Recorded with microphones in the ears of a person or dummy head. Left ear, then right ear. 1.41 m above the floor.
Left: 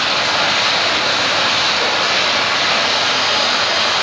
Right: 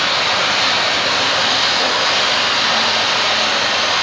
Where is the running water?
30° right (ahead or behind), 1.9 m.